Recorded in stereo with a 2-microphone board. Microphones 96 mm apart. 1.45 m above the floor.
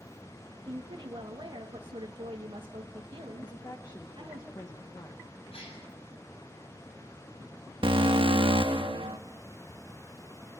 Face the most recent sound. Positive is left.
turn(degrees=-65)  # may be behind; listen again after turning